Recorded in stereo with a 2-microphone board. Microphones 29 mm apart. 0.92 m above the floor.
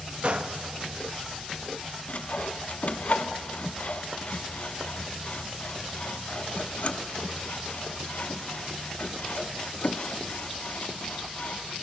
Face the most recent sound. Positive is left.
turn(degrees=55)  # may be behind; listen again after turning